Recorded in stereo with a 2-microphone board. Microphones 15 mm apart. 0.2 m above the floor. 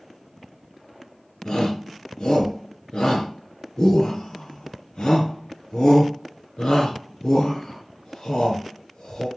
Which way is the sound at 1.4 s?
65° left (ahead or behind).